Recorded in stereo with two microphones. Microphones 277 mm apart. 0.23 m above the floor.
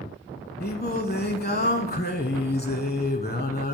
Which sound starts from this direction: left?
Singing, at 0.6 s.